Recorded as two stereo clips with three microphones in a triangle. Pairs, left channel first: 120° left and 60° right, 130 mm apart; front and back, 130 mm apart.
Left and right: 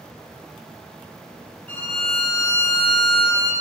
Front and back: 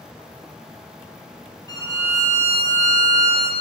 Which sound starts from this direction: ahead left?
A violin, at 1.7 s.